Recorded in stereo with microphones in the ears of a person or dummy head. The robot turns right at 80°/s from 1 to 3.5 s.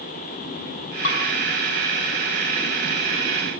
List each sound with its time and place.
1.0 s dishes clattering: 50° left (ahead or behind), 8.5 m; by 1.2 s 60° left (ahead or behind), 8.5 m